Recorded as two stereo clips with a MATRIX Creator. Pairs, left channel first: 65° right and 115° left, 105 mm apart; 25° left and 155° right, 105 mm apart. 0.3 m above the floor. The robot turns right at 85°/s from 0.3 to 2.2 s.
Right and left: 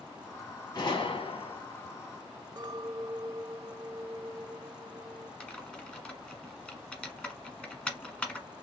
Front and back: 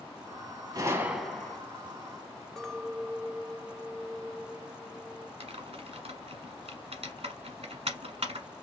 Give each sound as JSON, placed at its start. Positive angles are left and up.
{"t": 0.8, "sound": "a gunshot", "azimuth_deg": -110, "distance_m": 1.1}
{"t": 2.6, "sound": "a clink", "azimuth_deg": 105, "distance_m": 0.6}
{"t": 5.4, "sound": "typing on a keyboard", "azimuth_deg": -150, "distance_m": 1.3}